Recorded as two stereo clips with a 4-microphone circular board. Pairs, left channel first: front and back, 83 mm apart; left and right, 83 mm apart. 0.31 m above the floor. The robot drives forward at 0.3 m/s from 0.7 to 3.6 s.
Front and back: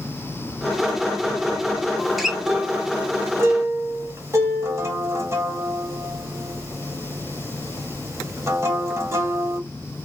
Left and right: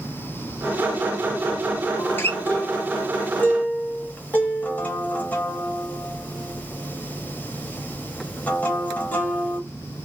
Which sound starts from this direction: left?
A guitar, at 2.0 s.